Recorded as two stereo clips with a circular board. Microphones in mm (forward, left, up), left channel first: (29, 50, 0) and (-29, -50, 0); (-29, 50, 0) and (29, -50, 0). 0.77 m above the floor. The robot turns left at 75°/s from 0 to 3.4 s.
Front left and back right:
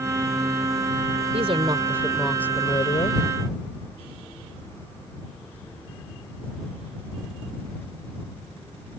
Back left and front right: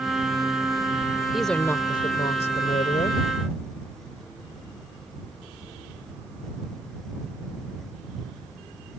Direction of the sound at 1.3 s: 145° right.